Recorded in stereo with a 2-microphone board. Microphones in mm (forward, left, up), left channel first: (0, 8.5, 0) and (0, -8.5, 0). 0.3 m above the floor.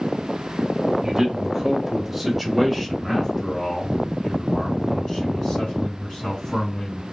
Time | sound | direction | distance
1.0 | a man speaking | 25° right (ahead or behind) | 1.5 m